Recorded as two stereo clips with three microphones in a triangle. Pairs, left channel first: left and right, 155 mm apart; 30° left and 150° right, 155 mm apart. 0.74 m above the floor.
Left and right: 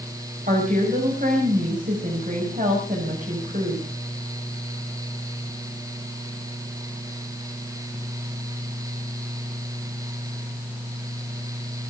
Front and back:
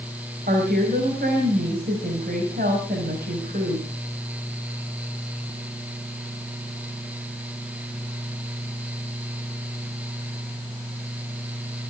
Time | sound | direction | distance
0.5 | a woman speaking | 125° right | 5.5 m